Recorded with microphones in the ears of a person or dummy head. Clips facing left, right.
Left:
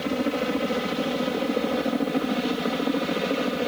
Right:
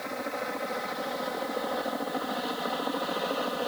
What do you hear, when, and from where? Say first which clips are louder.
0.0 s a helicopter: left 9 dB; 45° left (ahead or behind); by 3.7 s 30° left (ahead or behind)